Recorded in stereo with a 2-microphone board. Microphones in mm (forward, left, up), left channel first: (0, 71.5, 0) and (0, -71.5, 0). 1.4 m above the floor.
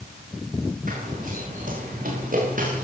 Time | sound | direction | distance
0.9 | running footsteps | 75° right (ahead or behind) | 10 m